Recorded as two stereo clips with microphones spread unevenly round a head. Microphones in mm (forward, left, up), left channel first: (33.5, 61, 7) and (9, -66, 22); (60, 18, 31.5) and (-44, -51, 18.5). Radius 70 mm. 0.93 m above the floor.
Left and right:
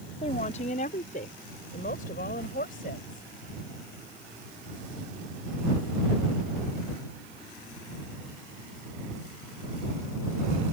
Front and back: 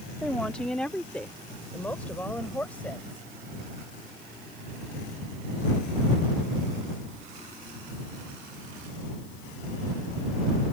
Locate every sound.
0.2 s a woman speaking: 120° left; by 3.2 s 115° left